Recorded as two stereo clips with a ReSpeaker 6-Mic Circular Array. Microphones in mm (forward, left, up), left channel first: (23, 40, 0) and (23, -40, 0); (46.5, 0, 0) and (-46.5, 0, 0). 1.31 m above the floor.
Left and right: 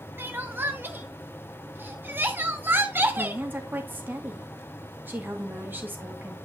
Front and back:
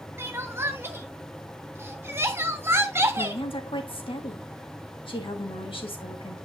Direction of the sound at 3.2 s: 25° right.